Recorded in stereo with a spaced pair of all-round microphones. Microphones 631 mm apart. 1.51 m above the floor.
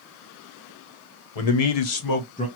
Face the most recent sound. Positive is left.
turn(degrees=10)  # may be behind; listen again after turning